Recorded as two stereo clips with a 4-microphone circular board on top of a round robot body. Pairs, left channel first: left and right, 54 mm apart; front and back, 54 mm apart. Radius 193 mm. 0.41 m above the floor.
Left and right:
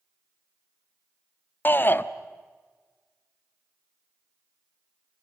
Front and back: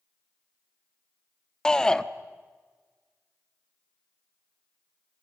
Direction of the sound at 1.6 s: 70° left.